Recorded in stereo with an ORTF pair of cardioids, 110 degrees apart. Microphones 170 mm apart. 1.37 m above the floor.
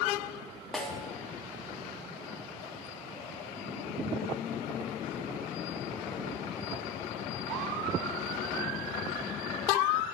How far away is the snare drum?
About 3.5 m.